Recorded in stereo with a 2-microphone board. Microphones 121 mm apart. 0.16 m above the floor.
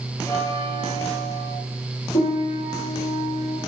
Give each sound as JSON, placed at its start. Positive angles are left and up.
{"t": 0.2, "sound": "a bell", "side_deg": 25, "distance_m": 4.0}
{"t": 2.1, "sound": "a piano", "side_deg": 55, "distance_m": 5.5}